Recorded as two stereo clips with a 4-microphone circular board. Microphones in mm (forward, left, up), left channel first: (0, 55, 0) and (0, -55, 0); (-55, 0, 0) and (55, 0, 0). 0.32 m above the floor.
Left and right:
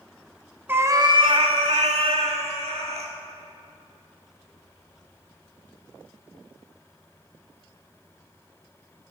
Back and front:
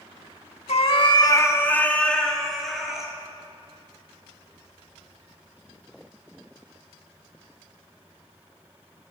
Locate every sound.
0.7 s a cat meowing: 160° right, 0.5 m; by 3.1 s 85° right, 1.5 m